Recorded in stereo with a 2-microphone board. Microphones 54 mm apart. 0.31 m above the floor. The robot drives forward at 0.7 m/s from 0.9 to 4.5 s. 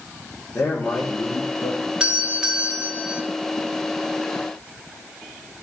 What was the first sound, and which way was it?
A man speaking, 65° left (ahead or behind).